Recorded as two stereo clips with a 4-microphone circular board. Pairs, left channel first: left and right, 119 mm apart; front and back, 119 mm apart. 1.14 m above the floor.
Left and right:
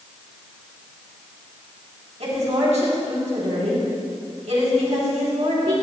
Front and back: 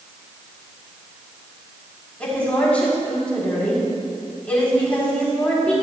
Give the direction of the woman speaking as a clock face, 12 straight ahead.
3 o'clock.